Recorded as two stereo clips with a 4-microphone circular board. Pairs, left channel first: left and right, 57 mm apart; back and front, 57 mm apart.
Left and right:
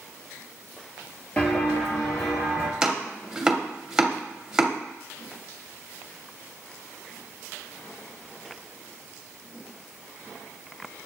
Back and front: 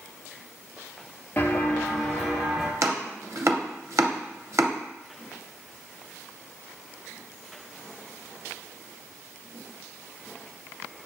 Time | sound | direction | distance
1.4 | footsteps | 145° left | 0.8 m
2.8 | chopping | 15° right | 0.6 m